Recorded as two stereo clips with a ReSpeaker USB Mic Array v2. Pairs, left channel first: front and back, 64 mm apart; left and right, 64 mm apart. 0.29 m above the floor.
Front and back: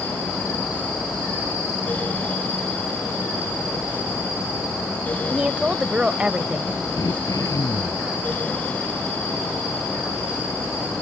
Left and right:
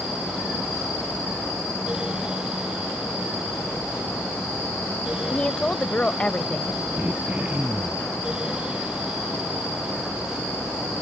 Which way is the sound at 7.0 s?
25° right.